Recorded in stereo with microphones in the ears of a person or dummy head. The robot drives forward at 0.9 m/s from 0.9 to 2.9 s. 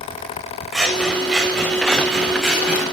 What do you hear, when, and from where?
0.7 s scissors: centre (ahead or behind), 5 m